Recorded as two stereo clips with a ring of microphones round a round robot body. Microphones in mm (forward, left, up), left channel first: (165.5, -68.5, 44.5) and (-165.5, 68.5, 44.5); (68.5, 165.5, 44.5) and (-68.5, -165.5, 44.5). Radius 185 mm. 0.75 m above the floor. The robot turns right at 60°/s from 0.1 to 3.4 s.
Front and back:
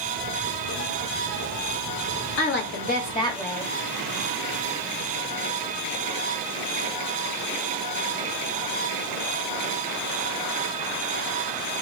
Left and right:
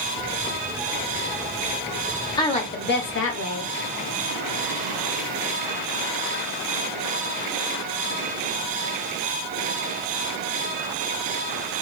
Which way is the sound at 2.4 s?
5° right.